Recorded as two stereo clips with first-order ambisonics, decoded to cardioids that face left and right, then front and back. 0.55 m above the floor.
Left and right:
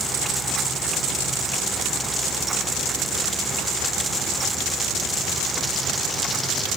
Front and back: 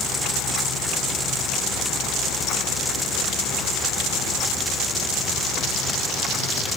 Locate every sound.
Only background noise.